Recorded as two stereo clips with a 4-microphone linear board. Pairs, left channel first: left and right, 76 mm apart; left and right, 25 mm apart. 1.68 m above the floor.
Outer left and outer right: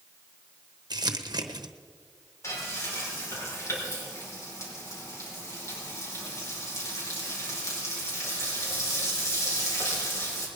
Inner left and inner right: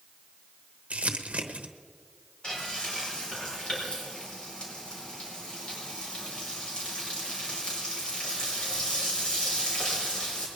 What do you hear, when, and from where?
0.9 s crumpling: 60° right (ahead or behind), 0.9 m
2.4 s frying: 35° left (ahead or behind), 4.5 m